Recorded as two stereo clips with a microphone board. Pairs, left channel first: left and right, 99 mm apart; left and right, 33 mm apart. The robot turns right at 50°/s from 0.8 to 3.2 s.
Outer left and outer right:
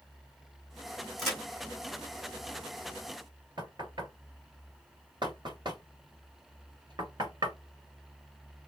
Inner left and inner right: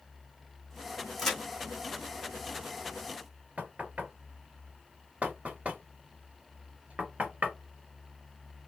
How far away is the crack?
About 3 m.